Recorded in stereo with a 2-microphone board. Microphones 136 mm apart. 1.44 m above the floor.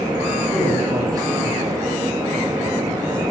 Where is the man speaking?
25° right (ahead or behind), 5 m.